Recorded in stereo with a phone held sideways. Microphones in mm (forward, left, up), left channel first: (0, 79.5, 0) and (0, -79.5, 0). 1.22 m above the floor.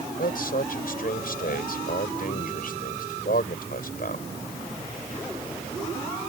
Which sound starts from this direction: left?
A man speaking, at 0.2 s.